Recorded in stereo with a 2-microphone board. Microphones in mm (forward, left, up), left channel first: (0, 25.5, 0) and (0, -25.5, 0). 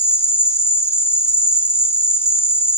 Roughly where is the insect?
Left.